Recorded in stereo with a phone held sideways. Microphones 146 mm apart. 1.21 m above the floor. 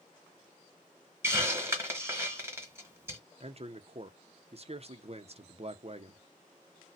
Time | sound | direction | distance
1.2 | a hiss | 20° right (ahead or behind) | 1.3 m
3.4 | a man speaking | 45° right (ahead or behind) | 0.6 m